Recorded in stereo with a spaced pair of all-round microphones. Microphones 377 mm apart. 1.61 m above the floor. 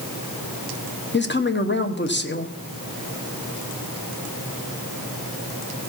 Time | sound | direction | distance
1.1 | a woman speaking | 30° left (ahead or behind) | 1.1 m